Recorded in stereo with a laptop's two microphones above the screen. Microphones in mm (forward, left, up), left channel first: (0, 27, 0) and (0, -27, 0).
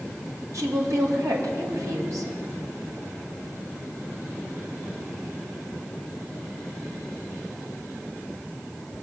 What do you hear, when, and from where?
0.5 s a woman speaking: 85° right, 2 m